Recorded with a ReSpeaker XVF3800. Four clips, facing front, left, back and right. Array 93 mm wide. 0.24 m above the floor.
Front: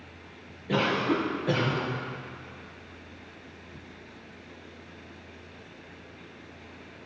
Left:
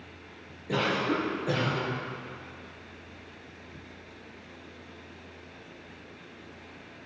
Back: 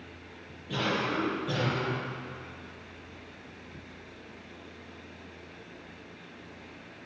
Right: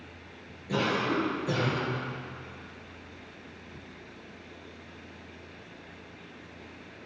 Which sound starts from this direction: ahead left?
A cough, at 0.7 s.